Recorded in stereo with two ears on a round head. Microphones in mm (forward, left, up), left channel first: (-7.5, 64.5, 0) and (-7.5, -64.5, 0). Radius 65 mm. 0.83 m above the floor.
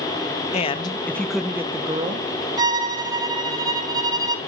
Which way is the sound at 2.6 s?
25° right (ahead or behind).